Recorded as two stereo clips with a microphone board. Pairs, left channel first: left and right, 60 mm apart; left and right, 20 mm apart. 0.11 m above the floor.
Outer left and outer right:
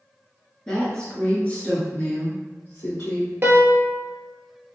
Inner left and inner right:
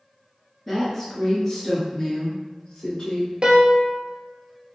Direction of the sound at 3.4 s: 45° right (ahead or behind).